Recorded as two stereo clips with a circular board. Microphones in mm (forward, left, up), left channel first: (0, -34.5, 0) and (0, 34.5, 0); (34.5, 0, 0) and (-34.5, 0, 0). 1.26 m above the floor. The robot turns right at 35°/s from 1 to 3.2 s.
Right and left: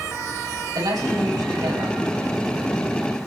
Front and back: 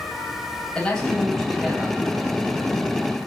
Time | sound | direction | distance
0.8 | a man speaking | 80° left | 9 m